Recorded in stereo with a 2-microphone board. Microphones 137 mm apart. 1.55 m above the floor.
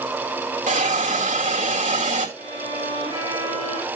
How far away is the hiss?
About 2 m.